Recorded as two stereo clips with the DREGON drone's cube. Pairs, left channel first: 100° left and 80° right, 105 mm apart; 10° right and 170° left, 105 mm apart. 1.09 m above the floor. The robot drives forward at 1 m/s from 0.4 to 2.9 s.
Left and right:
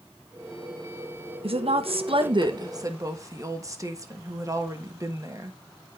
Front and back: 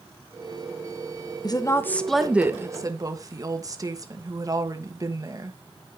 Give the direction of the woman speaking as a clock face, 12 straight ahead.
2 o'clock.